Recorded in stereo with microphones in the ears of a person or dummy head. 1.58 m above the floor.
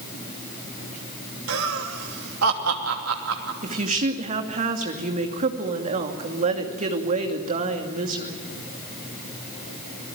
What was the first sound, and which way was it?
Laughter, 85° right.